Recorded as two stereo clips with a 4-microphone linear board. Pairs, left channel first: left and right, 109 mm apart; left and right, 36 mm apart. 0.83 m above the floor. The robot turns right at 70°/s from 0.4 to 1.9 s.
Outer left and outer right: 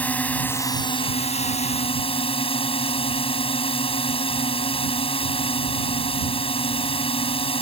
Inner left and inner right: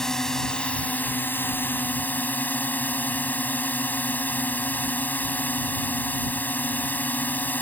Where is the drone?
15° left; by 7.6 s 120° left.